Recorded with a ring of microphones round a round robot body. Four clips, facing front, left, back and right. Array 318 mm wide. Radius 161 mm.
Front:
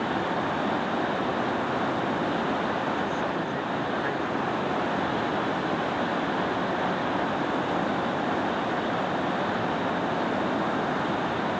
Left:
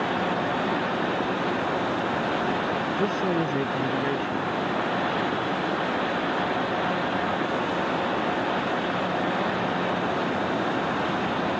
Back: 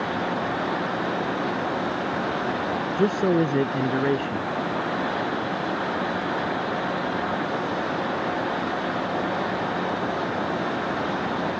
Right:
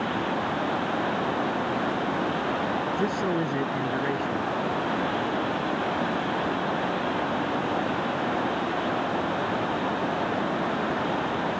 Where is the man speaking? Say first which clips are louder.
Left 3 dB, back 7 dB; 175° left.